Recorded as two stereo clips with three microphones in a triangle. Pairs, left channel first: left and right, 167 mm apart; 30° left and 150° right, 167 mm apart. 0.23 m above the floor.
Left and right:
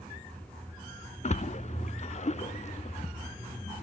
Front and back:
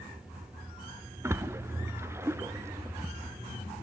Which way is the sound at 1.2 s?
140° left.